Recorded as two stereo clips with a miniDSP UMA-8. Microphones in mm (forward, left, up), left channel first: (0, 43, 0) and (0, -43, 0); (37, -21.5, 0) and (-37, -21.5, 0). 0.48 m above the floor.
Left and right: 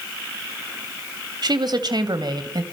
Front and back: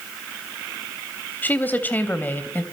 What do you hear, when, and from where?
1.4 s a woman speaking: 65° right, 3 m